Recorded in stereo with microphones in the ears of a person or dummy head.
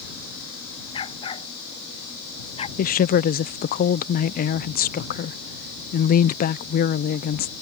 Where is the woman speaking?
45° left (ahead or behind).